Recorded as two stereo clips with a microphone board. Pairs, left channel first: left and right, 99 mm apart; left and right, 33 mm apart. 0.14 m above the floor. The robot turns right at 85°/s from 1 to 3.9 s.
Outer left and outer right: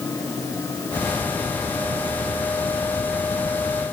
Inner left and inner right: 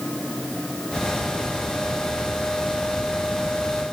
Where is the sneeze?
I don't hear a sneeze.